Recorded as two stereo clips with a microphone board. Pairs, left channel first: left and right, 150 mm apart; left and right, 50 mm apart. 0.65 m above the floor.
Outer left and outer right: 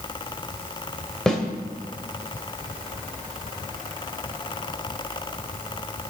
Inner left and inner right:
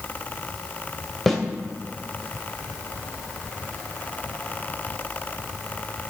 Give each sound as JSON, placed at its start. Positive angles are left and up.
{"t": 1.3, "sound": "a snare drum", "side_deg": 5, "distance_m": 2.5}